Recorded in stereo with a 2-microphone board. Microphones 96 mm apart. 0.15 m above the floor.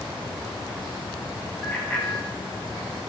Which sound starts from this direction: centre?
A bicycle bell, at 1.6 s.